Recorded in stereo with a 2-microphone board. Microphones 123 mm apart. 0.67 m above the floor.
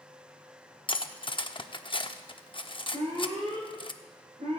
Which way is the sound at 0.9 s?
45° left (ahead or behind).